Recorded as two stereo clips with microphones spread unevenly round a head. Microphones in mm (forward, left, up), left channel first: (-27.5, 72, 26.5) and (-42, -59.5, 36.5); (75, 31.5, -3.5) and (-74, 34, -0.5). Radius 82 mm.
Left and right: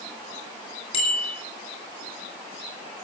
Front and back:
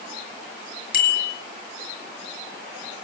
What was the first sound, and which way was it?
A bicycle bell, 25° left.